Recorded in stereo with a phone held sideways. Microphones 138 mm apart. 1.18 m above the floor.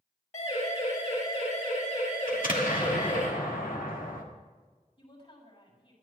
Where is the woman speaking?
45° left (ahead or behind), 7 m.